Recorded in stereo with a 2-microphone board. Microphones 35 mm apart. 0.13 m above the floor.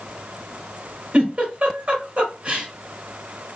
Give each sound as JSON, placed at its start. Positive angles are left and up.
{"t": 1.1, "sound": "a giggle", "side_deg": -35, "distance_m": 2.0}